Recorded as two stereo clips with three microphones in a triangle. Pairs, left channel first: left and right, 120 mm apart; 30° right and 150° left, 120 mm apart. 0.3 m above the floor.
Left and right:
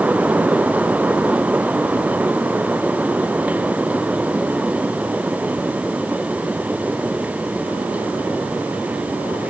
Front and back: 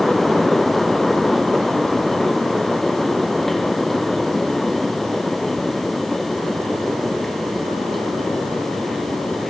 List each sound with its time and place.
Only background noise.